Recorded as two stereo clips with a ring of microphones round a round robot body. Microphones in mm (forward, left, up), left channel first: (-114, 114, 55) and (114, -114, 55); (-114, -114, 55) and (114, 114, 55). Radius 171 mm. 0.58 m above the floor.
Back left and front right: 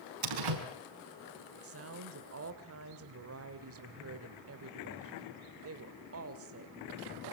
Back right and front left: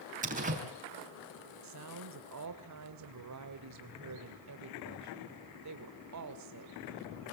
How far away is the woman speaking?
About 2 m.